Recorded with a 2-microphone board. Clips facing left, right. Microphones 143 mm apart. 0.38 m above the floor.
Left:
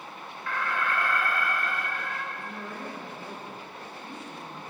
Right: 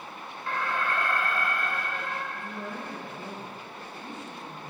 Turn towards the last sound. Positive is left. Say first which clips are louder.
# right 1 dB
turn(degrees=-25)  # may be behind; listen again after turning